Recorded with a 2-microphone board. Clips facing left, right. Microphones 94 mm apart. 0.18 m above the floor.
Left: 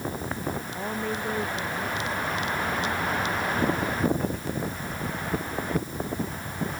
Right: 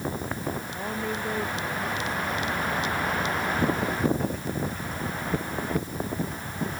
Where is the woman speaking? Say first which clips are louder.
Left 1 dB; 5° left (ahead or behind); by 3.0 s centre (ahead or behind).